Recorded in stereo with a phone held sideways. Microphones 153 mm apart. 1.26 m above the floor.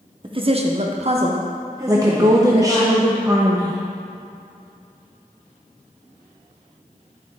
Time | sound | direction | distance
0.2 | a woman speaking | 30° right (ahead or behind) | 1.0 m
1.9 | a woman speaking | 20° right (ahead or behind) | 0.6 m